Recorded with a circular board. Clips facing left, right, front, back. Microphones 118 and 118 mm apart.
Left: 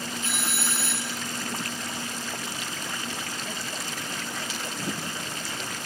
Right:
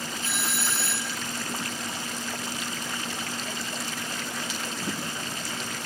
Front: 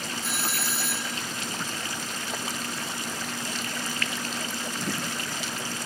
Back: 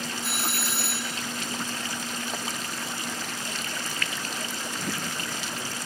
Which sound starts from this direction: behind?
A doorbell, at 0.2 s.